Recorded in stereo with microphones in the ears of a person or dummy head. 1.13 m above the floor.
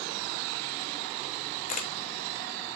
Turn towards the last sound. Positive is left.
turn(degrees=50)  # may be behind; listen again after turning